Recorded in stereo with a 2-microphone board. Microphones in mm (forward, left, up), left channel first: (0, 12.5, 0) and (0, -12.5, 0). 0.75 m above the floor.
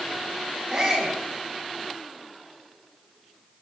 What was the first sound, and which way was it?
A shout, 25° right (ahead or behind).